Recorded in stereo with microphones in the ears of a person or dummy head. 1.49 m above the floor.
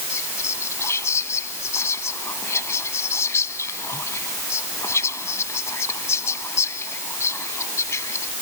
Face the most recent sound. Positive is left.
turn(degrees=15)  # may be behind; listen again after turning